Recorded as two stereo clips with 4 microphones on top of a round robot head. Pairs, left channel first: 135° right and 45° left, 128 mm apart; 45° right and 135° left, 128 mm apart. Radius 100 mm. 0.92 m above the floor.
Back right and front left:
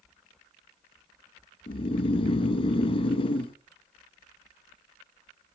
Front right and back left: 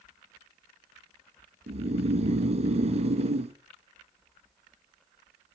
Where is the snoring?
175° left, 0.8 m.